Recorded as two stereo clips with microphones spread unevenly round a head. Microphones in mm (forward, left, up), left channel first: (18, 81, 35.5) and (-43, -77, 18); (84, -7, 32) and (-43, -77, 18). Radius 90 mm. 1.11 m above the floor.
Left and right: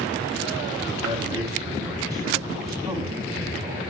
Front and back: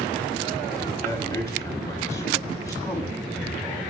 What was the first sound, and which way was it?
A man speaking, 40° right.